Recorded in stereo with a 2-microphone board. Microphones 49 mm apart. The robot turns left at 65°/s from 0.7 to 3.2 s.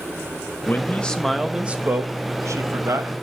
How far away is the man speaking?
About 1.2 m.